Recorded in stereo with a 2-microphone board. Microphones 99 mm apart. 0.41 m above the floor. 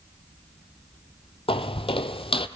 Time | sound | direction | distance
1.5 | footsteps | 70° left (ahead or behind) | 0.9 m